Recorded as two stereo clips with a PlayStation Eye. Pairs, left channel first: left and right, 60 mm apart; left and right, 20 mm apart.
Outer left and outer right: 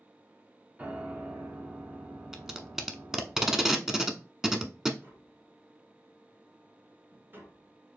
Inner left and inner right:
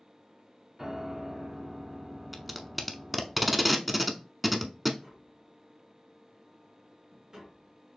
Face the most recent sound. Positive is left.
turn(degrees=-35)  # may be behind; listen again after turning